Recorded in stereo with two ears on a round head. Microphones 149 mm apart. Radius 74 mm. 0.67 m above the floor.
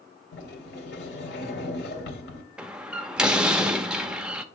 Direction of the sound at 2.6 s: 5° right (ahead or behind).